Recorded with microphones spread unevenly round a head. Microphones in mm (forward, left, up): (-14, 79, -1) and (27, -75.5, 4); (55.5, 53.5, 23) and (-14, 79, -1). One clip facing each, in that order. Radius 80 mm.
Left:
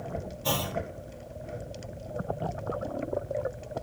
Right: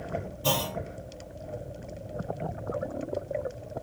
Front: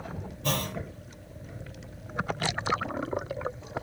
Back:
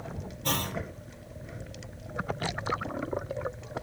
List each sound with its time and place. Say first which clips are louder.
0.4 s a clunk: right 1 dB, front 1 dB; 60° right, 1.4 m